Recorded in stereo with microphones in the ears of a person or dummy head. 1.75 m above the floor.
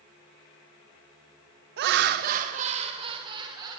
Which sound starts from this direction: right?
Laughter, at 1.8 s.